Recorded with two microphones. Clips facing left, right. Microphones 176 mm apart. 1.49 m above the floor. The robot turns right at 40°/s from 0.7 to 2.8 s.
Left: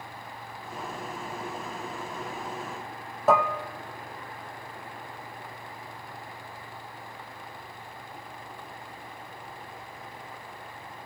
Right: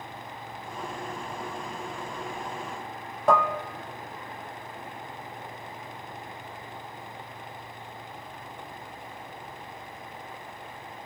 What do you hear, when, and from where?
3.3 s dishes clattering: 5° left (ahead or behind), 0.8 m